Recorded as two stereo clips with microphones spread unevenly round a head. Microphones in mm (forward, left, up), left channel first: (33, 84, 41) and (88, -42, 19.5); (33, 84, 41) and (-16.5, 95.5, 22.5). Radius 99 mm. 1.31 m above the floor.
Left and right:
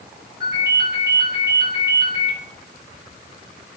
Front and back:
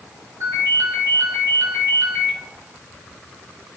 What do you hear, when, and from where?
0.4 s a ringtone: 140° right, 4 m